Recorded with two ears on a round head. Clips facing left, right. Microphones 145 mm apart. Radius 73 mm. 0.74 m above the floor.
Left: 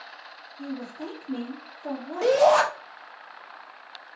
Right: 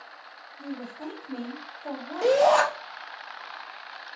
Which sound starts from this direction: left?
A woman speaking, at 0.6 s.